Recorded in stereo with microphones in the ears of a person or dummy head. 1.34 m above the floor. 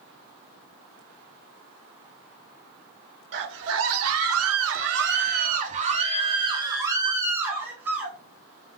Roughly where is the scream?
Right.